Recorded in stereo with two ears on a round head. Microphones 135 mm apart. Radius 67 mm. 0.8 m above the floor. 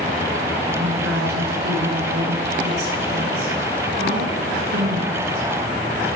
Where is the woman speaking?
80° right, 7.5 m.